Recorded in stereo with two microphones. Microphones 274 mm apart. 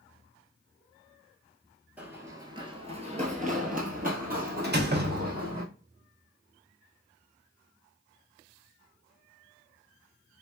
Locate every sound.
2.0 s running footsteps: 5° right (ahead or behind), 0.9 m; by 5.6 s 35° right (ahead or behind), 1.9 m
4.6 s a door slam: 40° right (ahead or behind), 0.7 m